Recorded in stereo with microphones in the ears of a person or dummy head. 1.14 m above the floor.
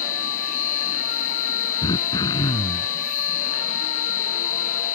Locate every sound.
0.0 s a machine running: 40° left (ahead or behind)
1.8 s throat clearing: 20° left (ahead or behind)